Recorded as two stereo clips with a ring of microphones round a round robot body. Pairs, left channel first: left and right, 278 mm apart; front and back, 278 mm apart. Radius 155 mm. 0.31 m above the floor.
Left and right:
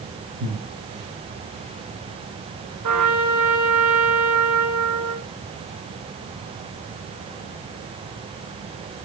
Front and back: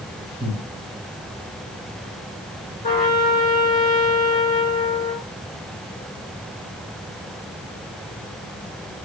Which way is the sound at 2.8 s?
60° right.